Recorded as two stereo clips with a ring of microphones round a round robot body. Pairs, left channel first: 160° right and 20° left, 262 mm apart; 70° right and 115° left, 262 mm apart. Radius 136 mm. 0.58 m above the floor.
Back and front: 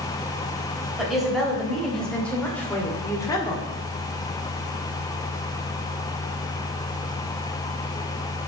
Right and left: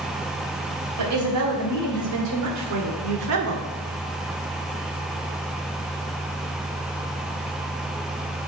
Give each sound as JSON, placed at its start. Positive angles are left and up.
{"t": 1.0, "sound": "a woman speaking", "azimuth_deg": 110, "distance_m": 3.0}